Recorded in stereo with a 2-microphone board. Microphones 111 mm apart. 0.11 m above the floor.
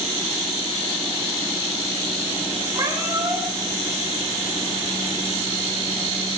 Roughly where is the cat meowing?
Right.